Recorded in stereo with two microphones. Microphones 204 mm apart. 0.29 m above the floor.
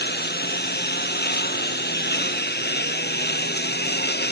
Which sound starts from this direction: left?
A lawn mower, at 0.0 s.